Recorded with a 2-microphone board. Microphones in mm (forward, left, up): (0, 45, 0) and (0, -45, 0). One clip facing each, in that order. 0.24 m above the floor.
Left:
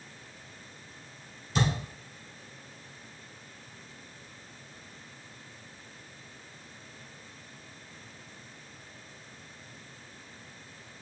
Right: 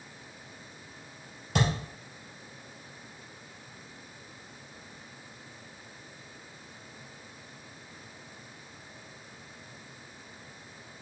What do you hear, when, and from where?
1.6 s a thud: 65° right (ahead or behind), 2.5 m